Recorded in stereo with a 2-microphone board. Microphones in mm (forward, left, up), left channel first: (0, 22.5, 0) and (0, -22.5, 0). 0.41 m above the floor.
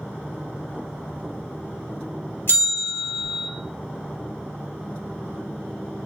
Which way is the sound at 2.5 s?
55° left (ahead or behind).